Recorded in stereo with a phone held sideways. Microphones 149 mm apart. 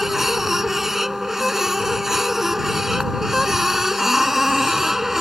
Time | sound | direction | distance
0.0 | a machine running | 5° right (ahead or behind) | ?